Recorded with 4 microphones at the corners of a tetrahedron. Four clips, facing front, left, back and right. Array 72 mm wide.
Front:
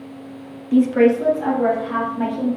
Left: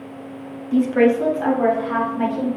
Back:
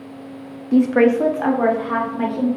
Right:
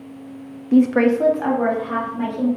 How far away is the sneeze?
No sneeze in this recording.